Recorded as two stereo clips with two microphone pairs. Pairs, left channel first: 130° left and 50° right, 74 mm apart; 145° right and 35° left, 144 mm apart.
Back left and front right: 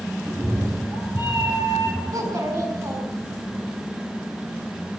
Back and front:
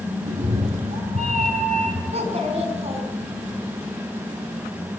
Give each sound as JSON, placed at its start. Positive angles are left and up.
{"t": 0.2, "sound": "a cat meowing", "azimuth_deg": 0, "distance_m": 3.5}
{"t": 2.1, "sound": "a child speaking", "azimuth_deg": -10, "distance_m": 6.0}